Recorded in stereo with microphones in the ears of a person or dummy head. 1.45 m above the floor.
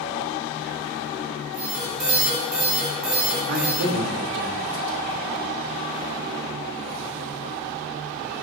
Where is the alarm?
45° right (ahead or behind), 3.5 m.